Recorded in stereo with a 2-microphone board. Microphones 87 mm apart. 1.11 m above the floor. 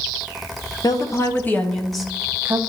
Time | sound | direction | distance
0.8 | a woman speaking | 50° left (ahead or behind) | 0.9 m